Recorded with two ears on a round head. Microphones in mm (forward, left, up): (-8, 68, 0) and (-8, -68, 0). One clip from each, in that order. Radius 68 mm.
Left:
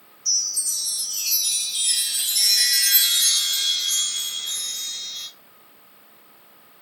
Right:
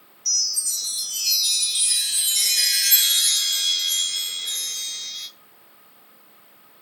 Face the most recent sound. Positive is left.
turn(degrees=-10)  # may be behind; listen again after turning